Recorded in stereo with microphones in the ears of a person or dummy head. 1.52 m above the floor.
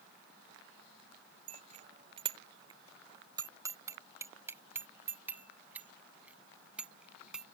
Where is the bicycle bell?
45° right (ahead or behind); by 7.5 s 5° right (ahead or behind).